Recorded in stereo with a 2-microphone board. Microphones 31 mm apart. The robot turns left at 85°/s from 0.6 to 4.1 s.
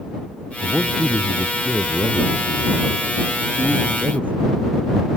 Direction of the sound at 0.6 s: 135° right.